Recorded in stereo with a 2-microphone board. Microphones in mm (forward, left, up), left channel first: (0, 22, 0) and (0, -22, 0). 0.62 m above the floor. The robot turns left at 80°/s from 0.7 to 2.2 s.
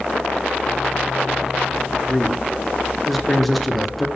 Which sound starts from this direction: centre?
A man speaking, at 2.1 s.